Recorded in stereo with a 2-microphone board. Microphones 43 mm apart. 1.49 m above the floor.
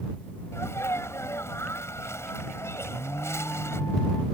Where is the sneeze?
85° left.